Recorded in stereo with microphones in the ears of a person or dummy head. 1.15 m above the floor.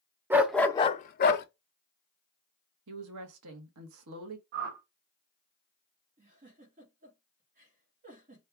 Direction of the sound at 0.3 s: 15° right (ahead or behind).